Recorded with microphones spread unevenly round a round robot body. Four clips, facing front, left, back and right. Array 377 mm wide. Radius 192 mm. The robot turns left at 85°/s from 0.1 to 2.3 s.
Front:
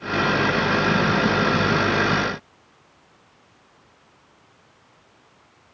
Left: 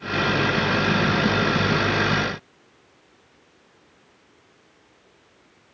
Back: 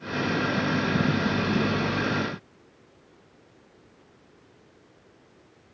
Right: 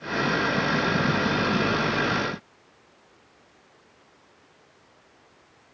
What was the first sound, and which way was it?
Only background noise.